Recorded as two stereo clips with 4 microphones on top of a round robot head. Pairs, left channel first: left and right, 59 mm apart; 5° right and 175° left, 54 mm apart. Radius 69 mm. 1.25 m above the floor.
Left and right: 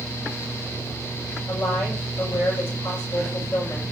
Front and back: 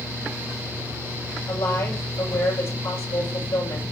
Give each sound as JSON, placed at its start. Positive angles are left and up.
{"t": 1.5, "sound": "a woman speaking", "azimuth_deg": 35, "distance_m": 7.0}